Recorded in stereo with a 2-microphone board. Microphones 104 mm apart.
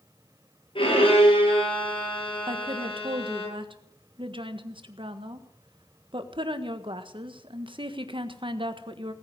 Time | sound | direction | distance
0.8 | a violin | 55° left (ahead or behind) | 8.5 m
2.5 | a woman speaking | 55° right (ahead or behind) | 1.5 m